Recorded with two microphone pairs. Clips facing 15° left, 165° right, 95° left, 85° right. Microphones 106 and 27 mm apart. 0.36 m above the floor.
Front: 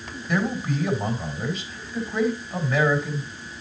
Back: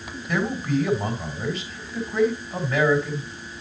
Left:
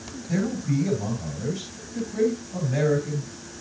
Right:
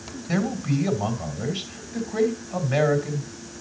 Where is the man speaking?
75° right, 2.5 m.